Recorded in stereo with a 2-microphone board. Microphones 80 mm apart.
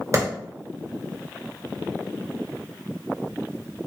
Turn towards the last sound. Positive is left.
turn(degrees=-40)  # may be behind; listen again after turning